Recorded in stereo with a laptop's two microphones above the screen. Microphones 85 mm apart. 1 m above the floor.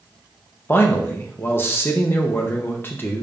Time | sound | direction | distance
0.7 | a man speaking | 25° left (ahead or behind) | 0.5 m